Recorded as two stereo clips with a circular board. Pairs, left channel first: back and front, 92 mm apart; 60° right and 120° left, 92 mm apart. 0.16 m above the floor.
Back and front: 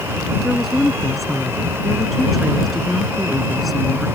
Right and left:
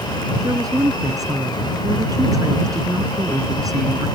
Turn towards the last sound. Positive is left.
turn(degrees=90)